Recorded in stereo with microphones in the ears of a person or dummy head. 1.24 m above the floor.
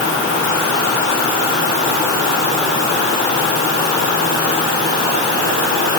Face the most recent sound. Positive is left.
No sound to turn to.